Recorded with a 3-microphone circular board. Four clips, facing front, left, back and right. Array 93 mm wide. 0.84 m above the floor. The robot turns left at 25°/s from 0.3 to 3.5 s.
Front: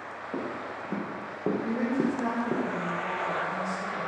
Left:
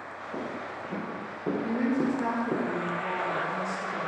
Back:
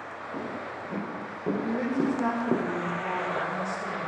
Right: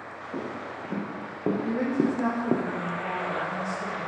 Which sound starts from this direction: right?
A woman speaking, at 1.6 s.